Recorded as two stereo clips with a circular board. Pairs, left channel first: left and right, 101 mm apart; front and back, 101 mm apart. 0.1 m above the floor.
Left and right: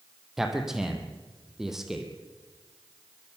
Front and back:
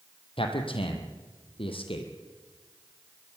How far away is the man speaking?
About 3.5 m.